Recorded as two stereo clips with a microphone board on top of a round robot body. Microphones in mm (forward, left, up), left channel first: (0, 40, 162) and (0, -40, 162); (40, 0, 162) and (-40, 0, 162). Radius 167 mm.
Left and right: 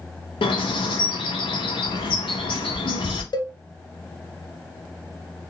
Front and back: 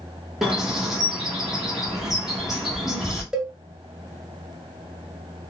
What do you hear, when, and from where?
0.4 s a bird: 95° left, 1.3 m
3.3 s a cowbell: 100° left, 1.0 m